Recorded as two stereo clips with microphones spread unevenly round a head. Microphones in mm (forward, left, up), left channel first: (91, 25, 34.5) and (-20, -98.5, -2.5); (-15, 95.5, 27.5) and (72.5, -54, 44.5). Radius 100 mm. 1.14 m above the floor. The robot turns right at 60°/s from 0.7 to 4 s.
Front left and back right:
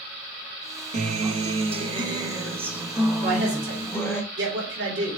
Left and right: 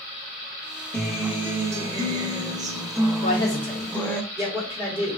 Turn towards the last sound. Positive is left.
turn(degrees=-135)